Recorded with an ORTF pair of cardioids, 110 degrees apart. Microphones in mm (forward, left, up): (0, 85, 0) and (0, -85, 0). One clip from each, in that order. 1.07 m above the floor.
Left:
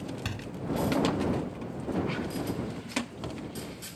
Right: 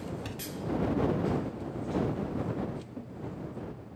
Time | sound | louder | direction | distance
0.2 | a door slam | left 2 dB | 50° left | ?